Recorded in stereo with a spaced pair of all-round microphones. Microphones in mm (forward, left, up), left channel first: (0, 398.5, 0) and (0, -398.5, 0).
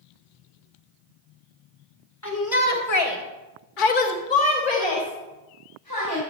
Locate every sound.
2.2 s a shout: 20° left (ahead or behind), 2.5 m